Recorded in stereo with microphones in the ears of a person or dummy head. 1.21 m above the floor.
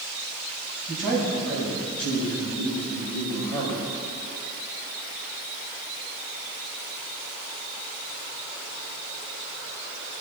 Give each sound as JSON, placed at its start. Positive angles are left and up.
{"t": 0.9, "sound": "a man speaking", "side_deg": -5, "distance_m": 6.5}